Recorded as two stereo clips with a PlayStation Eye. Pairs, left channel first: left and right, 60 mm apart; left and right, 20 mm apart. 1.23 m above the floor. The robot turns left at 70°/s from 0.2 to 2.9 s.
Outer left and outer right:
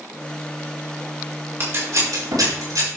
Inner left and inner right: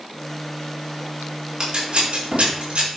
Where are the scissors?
40° right (ahead or behind), 4.5 m; by 2.9 s 50° right (ahead or behind), 4.5 m.